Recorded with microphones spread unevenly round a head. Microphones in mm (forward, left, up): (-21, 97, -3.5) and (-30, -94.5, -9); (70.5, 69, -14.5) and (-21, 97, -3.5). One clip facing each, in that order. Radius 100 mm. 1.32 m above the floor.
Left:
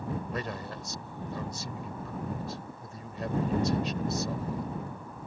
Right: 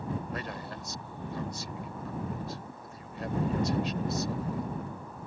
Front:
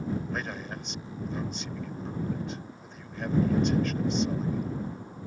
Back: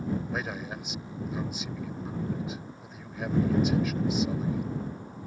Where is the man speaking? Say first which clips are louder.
Left 2 dB, back 1 dB; 80° left.